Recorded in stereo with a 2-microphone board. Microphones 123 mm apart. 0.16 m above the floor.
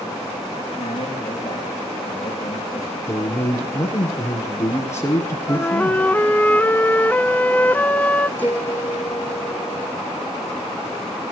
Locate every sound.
0.7 s a man speaking: 35° left (ahead or behind), 10 m
3.1 s a man speaking: 25° left (ahead or behind), 4 m
5.5 s a flute: 15° left (ahead or behind), 0.5 m
8.4 s a piano: 15° left (ahead or behind), 2.5 m